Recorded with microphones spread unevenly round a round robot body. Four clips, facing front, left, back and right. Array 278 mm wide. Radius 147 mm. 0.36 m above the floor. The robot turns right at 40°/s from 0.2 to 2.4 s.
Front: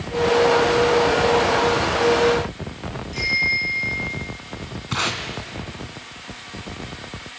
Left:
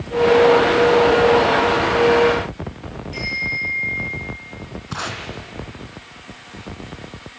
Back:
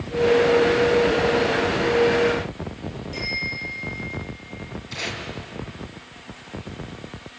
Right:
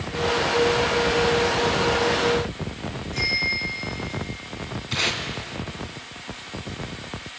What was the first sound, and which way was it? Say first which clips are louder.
A bicycle bell: left 2 dB, front 5 dB; 155° left.